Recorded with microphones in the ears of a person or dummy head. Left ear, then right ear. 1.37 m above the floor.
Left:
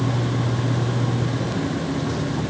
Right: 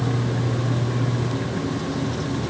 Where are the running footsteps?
No running footsteps in this recording.